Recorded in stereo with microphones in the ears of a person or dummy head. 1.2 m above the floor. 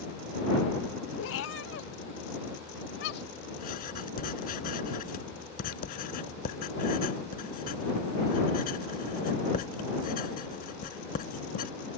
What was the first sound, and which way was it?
A cat meowing, 75° left (ahead or behind).